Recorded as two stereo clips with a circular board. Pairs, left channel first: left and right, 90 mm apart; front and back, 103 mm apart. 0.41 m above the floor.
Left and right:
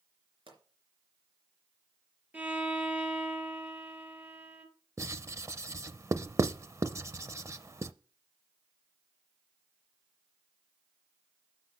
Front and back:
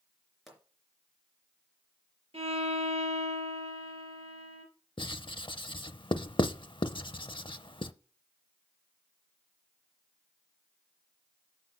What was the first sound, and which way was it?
A pop, 90° right.